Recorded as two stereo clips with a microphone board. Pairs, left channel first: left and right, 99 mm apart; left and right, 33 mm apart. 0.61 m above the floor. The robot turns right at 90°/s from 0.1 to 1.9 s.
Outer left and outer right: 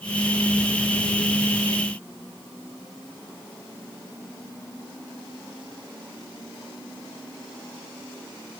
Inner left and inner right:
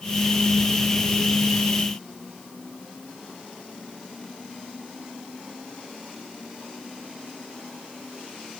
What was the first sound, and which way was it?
Only background noise.